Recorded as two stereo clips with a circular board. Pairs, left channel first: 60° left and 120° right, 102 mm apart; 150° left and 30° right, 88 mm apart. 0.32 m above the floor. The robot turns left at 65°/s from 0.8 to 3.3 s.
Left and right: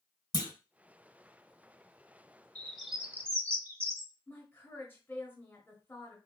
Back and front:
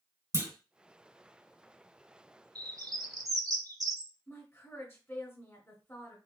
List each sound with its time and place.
0.3 s a clunk: 20° left, 1.2 m
2.5 s a bird: 15° right, 0.7 m; by 4.1 s 60° right, 0.7 m
4.3 s a woman speaking: 110° left, 1.4 m